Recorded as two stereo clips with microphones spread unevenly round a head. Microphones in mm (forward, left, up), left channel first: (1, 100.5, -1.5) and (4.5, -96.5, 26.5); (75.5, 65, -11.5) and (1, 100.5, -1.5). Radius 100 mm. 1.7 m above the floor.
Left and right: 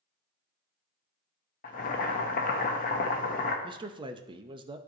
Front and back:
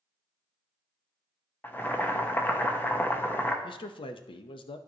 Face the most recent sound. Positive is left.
turn(degrees=-20)